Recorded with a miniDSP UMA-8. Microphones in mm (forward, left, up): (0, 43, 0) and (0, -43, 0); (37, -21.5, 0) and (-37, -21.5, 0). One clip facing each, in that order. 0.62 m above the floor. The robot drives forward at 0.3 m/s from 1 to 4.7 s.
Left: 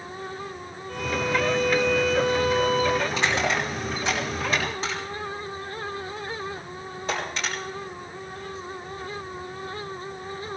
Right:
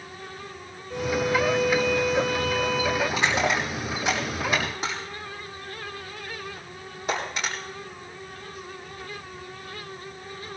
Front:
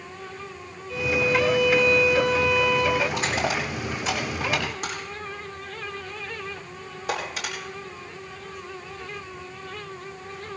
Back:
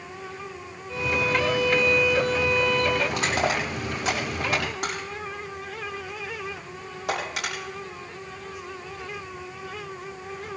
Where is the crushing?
165° right, 7.5 m; by 7.5 s 170° right, 8 m.